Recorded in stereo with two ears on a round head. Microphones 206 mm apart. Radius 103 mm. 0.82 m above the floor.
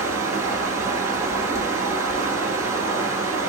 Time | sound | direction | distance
0.0 | running water | 15° right (ahead or behind) | 0.9 m